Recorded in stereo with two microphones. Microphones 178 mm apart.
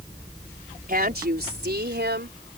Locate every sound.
0.9 s a woman speaking: 55° right (ahead or behind); by 2.6 s 75° right (ahead or behind)